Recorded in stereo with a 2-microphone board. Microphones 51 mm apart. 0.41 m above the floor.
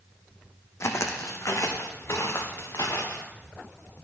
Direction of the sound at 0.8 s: 60° left (ahead or behind).